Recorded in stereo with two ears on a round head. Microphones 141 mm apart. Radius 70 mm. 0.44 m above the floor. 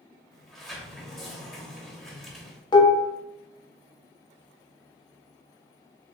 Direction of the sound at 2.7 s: 30° left (ahead or behind).